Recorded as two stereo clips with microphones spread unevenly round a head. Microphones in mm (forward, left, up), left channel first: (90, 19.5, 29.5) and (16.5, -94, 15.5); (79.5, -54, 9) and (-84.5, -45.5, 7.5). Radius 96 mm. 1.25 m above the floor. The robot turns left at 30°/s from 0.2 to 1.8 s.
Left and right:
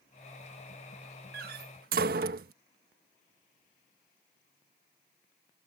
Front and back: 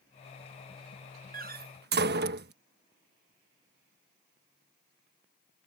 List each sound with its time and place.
1.3 s a door slam: 145° right; by 2.5 s 160° right